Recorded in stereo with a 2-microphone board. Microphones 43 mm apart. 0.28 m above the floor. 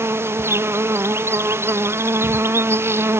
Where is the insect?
65° right (ahead or behind).